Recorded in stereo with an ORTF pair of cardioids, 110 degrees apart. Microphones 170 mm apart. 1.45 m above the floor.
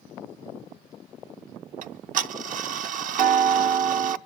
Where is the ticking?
55° right, 0.7 m.